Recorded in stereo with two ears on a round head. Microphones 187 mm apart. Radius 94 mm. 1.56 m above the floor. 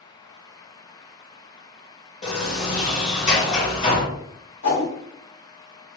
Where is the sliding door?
35° left (ahead or behind), 1.8 m.